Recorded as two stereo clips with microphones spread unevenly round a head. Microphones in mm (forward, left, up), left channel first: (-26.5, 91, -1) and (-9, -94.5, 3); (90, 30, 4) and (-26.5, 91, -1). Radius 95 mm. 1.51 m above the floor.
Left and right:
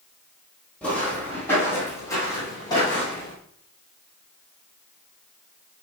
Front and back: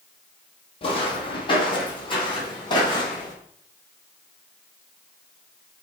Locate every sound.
0.8 s footsteps: 10° left, 3 m; by 3.3 s 25° left, 4.5 m